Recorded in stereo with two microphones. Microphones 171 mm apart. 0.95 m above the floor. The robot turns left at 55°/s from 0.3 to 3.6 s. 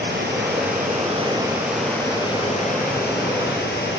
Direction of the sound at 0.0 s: 100° right.